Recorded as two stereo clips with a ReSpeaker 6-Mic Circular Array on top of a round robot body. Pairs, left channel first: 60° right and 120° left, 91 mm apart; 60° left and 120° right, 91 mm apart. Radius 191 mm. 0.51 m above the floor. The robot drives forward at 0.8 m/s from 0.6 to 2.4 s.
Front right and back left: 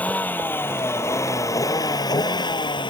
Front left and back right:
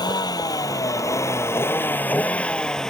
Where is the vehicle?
15° left; by 2.9 s 25° right.